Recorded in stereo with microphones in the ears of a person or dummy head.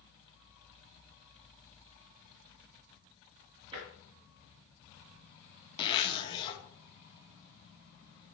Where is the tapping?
25° right (ahead or behind), 3.5 m.